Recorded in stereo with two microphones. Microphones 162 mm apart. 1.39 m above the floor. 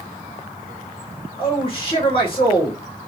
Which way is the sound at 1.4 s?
35° left (ahead or behind).